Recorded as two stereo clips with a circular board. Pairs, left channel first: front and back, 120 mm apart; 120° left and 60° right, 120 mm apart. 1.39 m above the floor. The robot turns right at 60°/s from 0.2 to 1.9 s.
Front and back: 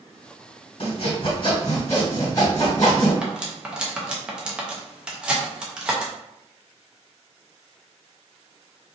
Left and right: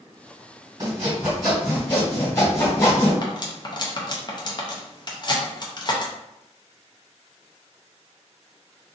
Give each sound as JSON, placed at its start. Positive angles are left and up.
{"t": 0.8, "sound": "sawing", "azimuth_deg": -10, "distance_m": 1.8}
{"t": 3.2, "sound": "cutlery clinking", "azimuth_deg": 100, "distance_m": 0.6}